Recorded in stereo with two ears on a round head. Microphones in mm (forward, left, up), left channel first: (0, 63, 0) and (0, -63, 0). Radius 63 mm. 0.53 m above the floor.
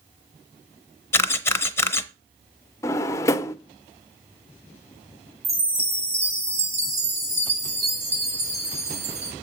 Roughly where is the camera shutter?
Centre.